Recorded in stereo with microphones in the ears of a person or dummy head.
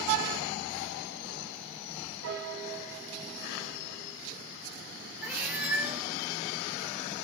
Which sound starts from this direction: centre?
A cat meowing, at 5.2 s.